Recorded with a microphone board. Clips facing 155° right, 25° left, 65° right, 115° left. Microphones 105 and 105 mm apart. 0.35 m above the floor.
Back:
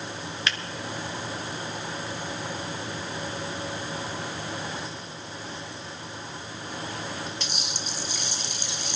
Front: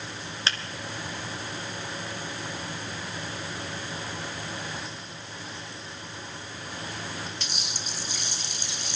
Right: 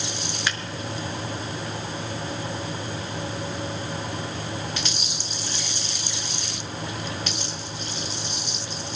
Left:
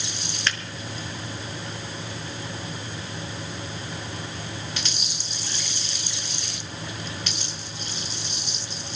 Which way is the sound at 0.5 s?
5° left.